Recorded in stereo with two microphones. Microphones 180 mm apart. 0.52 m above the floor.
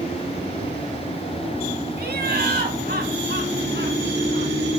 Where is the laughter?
60° right (ahead or behind), 3.5 m; by 4.5 s 75° right (ahead or behind), 5.5 m.